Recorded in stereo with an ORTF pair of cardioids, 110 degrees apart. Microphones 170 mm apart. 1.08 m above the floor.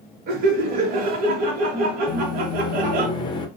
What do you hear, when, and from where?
0.3 s laughter: 60° right, 0.9 m
2.1 s a microwave: 25° left, 0.6 m